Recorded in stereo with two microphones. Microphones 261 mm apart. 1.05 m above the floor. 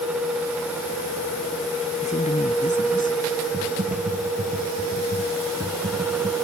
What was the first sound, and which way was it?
A woman speaking, 25° left (ahead or behind).